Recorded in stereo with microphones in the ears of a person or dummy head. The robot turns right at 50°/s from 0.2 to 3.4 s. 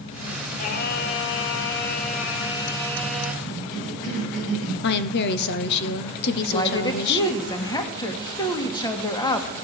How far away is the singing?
About 1.7 m.